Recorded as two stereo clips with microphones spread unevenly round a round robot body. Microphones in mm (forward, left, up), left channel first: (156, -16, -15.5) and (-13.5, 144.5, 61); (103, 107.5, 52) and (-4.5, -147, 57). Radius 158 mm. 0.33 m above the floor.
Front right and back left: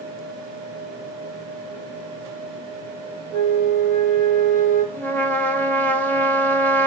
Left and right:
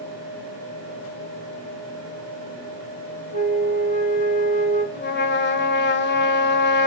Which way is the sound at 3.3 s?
5° left.